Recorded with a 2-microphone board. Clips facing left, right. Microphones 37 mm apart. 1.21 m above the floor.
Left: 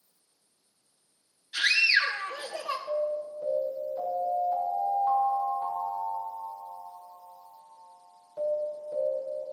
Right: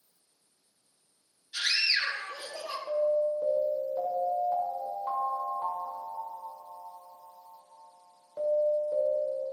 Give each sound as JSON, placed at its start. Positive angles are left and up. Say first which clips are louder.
{"t": 1.5, "sound": "a scream", "louder": "left 5 dB", "side_deg": 30, "distance_m": 2.0}
{"t": 2.9, "sound": "an alarm", "louder": "right 6 dB", "side_deg": -20, "distance_m": 7.0}